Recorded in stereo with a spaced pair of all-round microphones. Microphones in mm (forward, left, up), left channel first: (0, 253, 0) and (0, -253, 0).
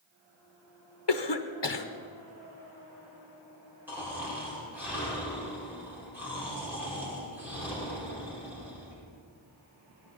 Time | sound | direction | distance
1.1 | a cough | 55° left (ahead or behind) | 0.8 m
3.9 | snoring | 5° right (ahead or behind) | 5.5 m